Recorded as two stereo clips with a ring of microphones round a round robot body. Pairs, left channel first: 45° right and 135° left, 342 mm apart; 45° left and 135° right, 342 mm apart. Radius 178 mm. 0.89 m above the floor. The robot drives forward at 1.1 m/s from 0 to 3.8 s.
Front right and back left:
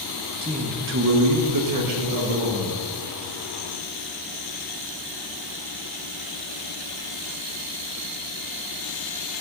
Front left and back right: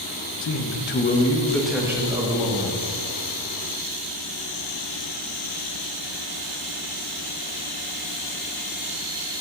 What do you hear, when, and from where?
0.4 s a man speaking: 60° left, 1.4 m; by 2.8 s 160° left, 2.5 m